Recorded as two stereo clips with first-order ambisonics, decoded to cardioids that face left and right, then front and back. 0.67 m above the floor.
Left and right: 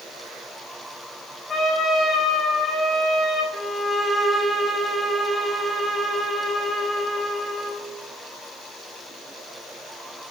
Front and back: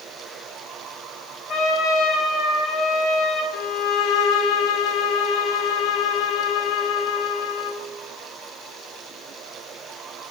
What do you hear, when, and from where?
1.5 s a trumpet: 25° left, 1.9 m
3.5 s a violin: straight ahead, 0.8 m